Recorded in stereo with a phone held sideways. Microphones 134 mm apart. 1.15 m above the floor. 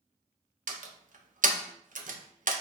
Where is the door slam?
80° right, 0.5 m.